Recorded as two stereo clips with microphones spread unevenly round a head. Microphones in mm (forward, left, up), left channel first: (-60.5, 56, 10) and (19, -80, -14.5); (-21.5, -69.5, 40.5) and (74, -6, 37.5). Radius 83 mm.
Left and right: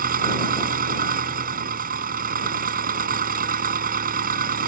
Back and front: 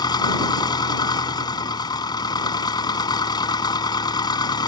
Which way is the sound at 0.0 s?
95° right.